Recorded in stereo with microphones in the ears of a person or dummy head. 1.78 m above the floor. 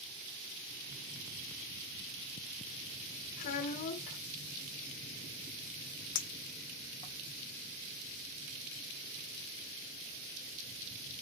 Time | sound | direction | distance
3.4 | a child speaking | 40° left (ahead or behind) | 0.9 m
6.2 | a clink | 25° left (ahead or behind) | 1.0 m